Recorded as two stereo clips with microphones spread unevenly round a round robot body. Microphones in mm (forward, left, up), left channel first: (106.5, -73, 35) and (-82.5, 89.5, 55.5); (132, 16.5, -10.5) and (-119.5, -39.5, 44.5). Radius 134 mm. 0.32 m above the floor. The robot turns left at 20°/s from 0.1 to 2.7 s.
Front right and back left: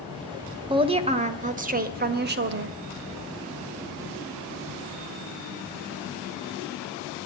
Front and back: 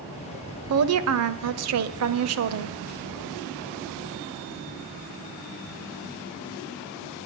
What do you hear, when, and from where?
0.7 s a woman speaking: 150° right, 1.3 m; by 2.8 s 170° left, 1.3 m